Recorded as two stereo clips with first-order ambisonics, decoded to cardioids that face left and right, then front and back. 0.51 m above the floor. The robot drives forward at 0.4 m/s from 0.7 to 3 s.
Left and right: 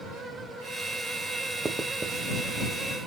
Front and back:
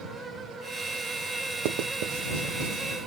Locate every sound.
1.6 s writing: 165° right, 0.6 m; by 2.8 s 170° right, 1.0 m